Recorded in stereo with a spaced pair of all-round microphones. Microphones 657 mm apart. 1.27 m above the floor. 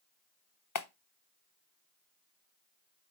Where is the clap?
30° left (ahead or behind), 0.9 m.